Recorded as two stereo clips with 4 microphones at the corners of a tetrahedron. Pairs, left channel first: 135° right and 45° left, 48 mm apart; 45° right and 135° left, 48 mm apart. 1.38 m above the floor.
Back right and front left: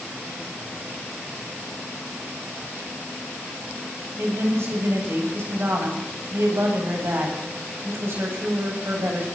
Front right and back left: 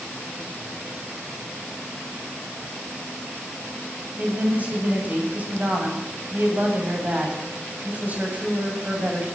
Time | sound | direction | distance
4.2 | a woman speaking | 80° left | 7.5 m